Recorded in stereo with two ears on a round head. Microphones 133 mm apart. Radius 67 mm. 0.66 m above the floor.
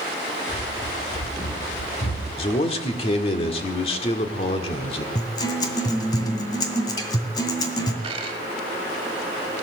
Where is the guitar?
30° left (ahead or behind), 2.0 m.